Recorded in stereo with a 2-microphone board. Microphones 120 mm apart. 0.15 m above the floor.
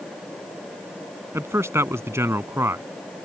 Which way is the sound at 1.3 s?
20° right (ahead or behind).